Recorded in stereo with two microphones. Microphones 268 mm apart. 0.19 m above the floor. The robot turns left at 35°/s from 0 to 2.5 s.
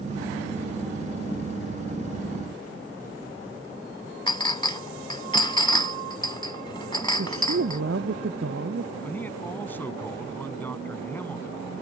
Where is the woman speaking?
55° right (ahead or behind).